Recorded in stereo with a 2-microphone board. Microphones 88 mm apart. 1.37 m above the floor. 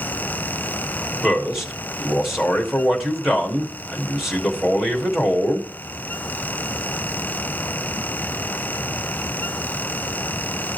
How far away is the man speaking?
About 2.5 m.